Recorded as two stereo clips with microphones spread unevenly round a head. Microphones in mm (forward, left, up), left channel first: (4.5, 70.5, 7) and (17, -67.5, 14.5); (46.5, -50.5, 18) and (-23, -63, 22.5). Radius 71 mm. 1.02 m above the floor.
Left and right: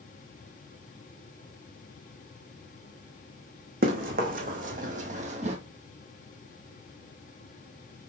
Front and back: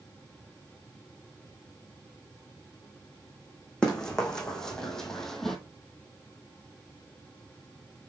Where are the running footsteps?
70° right, 2.5 m; by 5.6 s 80° right, 1.4 m.